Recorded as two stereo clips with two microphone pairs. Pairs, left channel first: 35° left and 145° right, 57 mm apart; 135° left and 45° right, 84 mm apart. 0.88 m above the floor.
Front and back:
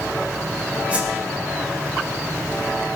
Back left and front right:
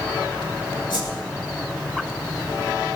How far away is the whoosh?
About 6.5 m.